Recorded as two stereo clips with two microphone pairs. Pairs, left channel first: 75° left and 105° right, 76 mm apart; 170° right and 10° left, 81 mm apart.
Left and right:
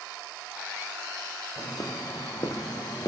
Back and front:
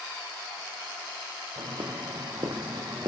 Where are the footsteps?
30° left, 2.5 m; by 3.1 s 50° left, 1.8 m.